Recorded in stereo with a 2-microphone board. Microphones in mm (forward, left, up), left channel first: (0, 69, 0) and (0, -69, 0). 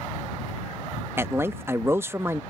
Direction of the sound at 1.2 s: 20° right (ahead or behind).